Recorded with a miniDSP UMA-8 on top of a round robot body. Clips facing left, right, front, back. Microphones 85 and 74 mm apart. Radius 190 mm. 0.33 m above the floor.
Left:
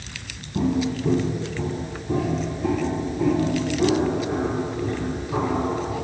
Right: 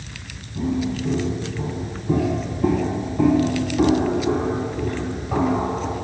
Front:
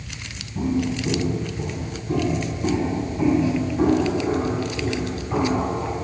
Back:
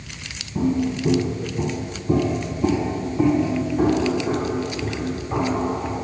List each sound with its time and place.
0.6 s footsteps: 135° left, 1.2 m; by 6.0 s 100° right, 3.5 m